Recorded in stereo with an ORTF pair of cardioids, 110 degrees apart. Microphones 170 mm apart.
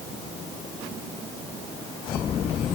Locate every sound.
Only background noise.